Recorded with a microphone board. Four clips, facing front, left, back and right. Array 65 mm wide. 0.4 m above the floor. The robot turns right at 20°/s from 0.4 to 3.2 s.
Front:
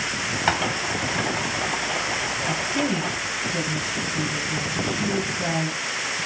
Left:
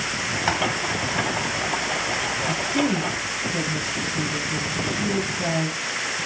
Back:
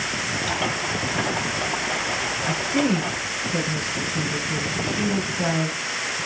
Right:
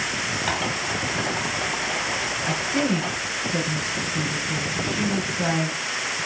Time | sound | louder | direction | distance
0.5 | tapping | left 4 dB, front 9 dB | 20° left | 1.6 m
2.5 | a woman speaking | even, back 4 dB | 155° right | 4 m